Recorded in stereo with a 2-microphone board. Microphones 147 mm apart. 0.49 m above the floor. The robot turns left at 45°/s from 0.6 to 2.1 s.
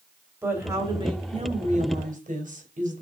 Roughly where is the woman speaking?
Ahead.